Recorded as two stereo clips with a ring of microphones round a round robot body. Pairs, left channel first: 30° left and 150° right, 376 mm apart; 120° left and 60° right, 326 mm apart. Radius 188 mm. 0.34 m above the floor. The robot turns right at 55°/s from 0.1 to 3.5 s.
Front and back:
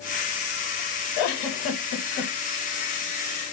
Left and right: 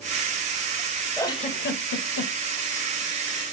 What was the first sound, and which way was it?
A giggle, 35° left.